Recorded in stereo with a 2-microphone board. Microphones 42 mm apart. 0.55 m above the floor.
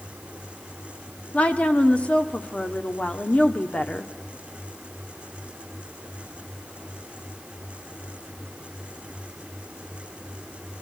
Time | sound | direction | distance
1.3 | a woman speaking | 30° left (ahead or behind) | 1.3 m